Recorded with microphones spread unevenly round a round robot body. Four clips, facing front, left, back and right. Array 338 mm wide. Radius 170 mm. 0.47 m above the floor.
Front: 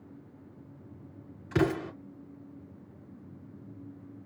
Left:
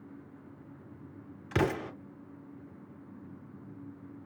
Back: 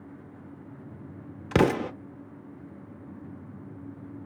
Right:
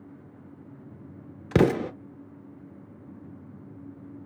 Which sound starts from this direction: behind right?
An explosion, at 1.5 s.